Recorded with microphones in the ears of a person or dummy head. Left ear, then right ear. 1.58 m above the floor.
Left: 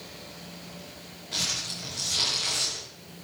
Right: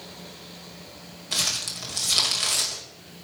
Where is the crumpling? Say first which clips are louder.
Right 3 dB; 45° right (ahead or behind), 2.0 m.